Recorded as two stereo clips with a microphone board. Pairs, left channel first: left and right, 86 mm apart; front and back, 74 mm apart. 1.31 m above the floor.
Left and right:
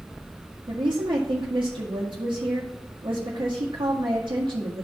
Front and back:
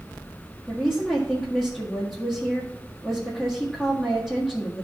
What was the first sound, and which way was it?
A woman speaking, 80° right.